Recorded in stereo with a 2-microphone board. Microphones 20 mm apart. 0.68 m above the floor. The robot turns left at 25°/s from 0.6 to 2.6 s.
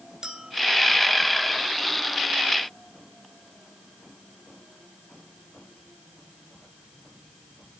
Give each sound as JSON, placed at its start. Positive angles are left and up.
{"t": 0.2, "sound": "a clink", "side_deg": -30, "distance_m": 2.5}